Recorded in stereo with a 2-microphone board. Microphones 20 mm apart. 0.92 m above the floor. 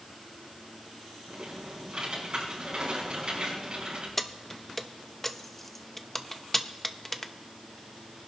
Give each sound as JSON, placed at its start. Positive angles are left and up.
{"t": 1.3, "sound": "typing on a keyboard", "side_deg": -50, "distance_m": 5.5}
{"t": 4.2, "sound": "keys jangling", "side_deg": 15, "distance_m": 0.6}